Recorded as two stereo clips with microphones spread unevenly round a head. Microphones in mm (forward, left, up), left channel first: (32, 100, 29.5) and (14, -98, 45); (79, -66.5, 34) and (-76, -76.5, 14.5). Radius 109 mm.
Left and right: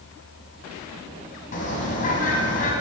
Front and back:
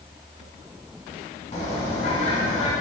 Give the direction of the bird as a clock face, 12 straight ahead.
10 o'clock.